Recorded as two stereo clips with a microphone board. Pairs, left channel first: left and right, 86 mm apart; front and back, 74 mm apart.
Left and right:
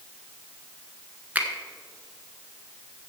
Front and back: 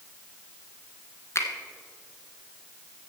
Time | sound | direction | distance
1.4 | a finger snap | 25° right | 1.3 m